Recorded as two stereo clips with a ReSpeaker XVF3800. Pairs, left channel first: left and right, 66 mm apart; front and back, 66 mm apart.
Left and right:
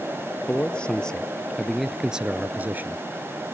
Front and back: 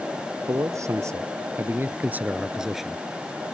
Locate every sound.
0.5 s a man speaking: 160° left; by 3.0 s 85° right